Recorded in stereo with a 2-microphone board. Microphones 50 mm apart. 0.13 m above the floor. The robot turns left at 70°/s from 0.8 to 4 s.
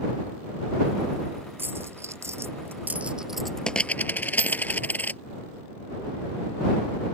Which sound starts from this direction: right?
A dropped coin, at 1.6 s.